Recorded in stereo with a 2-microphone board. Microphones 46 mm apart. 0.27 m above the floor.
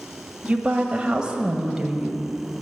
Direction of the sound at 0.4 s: 25° right (ahead or behind).